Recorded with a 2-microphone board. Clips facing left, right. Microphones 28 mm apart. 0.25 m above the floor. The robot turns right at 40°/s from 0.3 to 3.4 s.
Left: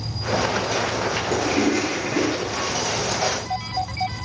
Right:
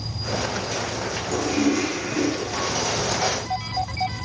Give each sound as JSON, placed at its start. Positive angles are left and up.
{"t": 1.3, "sound": "a toilet flushing", "azimuth_deg": 35, "distance_m": 0.8}